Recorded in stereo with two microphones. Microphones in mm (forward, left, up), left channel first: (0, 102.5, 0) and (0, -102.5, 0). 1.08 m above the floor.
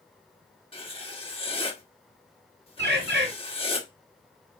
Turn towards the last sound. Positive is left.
turn(degrees=-65)  # may be behind; listen again after turning